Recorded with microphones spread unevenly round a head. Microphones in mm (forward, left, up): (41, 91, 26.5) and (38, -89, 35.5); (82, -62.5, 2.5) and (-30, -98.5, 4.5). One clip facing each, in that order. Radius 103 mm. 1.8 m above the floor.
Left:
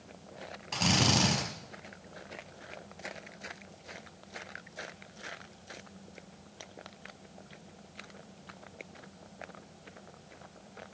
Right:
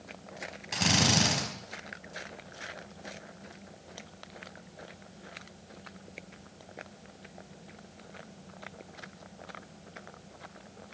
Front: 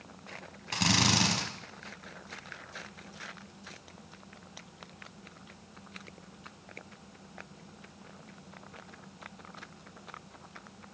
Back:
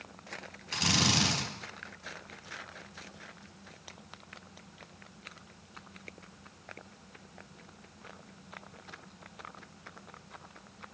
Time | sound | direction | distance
0.7 | a drill | 10° right | 5.5 m